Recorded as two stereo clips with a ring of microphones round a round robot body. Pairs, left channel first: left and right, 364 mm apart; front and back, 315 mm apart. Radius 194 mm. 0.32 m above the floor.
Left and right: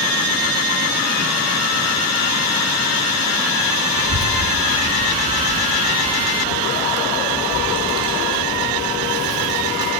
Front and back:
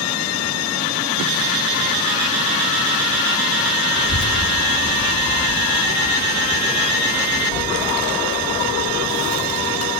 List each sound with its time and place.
4.0 s a child speaking: 55° right, 1.2 m; by 9.9 s 10° right, 3.5 m